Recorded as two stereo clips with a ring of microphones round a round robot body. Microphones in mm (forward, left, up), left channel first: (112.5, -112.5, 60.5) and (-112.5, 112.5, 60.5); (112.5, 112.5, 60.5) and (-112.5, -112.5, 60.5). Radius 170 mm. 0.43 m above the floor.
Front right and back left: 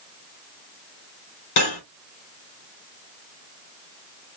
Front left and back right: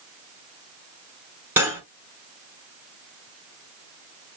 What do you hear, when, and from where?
1.6 s cutlery clinking: 50° right, 2.5 m